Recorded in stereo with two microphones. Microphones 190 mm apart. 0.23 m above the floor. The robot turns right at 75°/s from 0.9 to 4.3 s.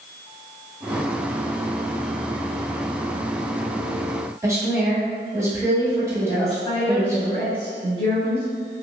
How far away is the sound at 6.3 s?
About 1.0 m.